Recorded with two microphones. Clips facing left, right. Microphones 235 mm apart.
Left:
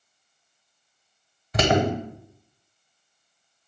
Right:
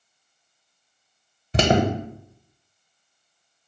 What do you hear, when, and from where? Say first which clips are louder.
1.5 s an alarm: right 2 dB; 30° right (ahead or behind), 0.8 m